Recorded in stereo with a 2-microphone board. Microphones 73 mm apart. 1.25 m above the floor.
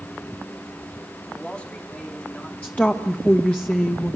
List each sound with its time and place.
1.3 s a man speaking: 15° left (ahead or behind), 3 m
2.6 s a woman speaking: 20° left (ahead or behind), 1.2 m